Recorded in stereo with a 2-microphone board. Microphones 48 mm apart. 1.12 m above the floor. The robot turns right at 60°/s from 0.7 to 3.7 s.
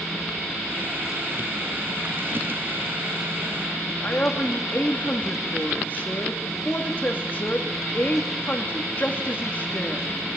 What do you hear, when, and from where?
4.0 s a woman speaking: 40° left (ahead or behind), 2.5 m